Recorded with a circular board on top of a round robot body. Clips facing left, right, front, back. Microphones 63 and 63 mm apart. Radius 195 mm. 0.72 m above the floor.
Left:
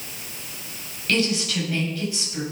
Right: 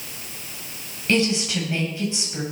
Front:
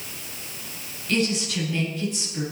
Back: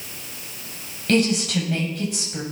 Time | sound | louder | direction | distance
1.1 | a woman speaking | right 2 dB, back 5 dB | 155° right | 4.5 m